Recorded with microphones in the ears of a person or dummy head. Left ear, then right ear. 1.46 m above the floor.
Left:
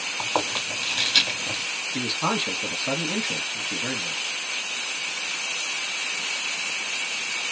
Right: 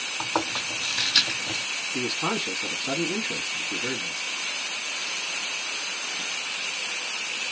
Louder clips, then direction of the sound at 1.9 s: Left 3 dB; 15° left (ahead or behind).